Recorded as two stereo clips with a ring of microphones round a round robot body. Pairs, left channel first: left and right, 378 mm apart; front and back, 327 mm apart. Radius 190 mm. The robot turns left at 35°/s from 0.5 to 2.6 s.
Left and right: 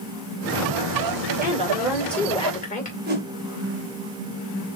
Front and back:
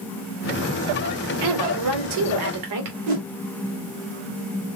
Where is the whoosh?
155° right, 2.5 m.